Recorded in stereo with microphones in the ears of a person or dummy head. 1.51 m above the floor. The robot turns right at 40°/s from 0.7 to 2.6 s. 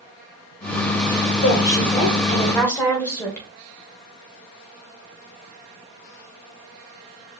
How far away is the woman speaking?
About 1.6 m.